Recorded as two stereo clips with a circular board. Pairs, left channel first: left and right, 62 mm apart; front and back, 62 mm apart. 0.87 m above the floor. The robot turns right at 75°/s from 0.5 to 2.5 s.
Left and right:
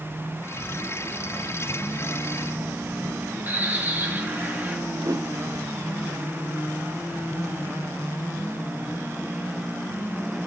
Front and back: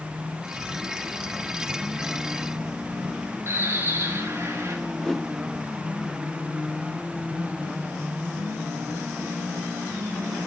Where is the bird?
140° right, 1.9 m.